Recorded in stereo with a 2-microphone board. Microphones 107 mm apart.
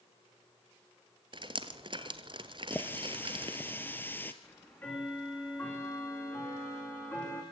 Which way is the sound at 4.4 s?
15° left (ahead or behind).